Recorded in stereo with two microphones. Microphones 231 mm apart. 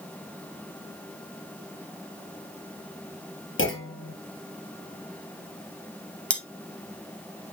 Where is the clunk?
65° left (ahead or behind), 2 m.